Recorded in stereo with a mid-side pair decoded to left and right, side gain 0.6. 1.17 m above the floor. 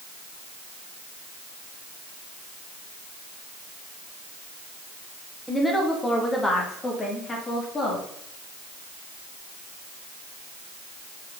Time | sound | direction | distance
5.5 | a woman speaking | straight ahead | 2 m